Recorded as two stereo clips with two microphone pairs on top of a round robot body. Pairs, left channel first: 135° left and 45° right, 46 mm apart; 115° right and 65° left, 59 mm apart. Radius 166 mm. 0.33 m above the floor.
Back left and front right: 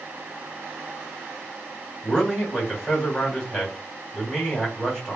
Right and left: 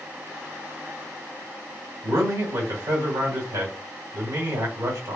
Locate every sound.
2.0 s a man speaking: 60° left, 2 m